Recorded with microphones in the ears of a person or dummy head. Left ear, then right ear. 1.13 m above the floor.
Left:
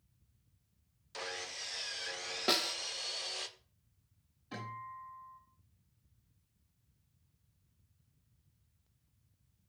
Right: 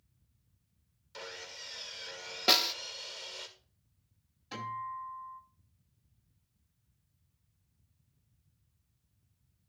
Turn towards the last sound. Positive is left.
turn(degrees=-25)  # may be behind; listen again after turning